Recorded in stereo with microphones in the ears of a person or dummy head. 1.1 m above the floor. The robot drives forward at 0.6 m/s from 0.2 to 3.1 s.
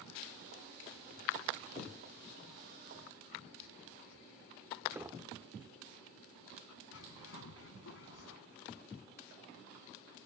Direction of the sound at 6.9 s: 80° left.